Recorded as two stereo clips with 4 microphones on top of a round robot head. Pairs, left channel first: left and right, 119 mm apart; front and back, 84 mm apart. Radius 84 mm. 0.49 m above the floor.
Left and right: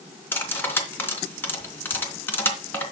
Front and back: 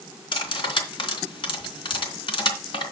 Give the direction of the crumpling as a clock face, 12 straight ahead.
No crumpling in this recording.